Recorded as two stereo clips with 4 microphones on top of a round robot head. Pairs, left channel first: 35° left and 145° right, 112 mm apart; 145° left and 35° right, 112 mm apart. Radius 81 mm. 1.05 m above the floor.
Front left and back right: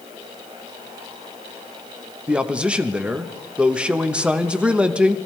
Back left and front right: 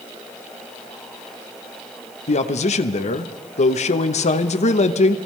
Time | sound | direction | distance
2.3 | a man speaking | 135° left | 1.0 m